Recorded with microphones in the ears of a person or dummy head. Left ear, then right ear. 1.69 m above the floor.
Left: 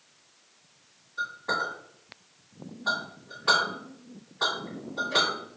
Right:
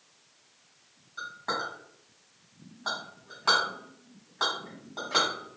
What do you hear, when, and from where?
1.2 s a clink: 40° right (ahead or behind), 1.4 m